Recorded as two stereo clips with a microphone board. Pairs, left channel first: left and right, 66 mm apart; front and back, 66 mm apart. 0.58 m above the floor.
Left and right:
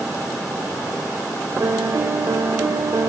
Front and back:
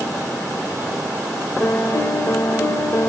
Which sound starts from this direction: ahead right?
A piano, at 1.6 s.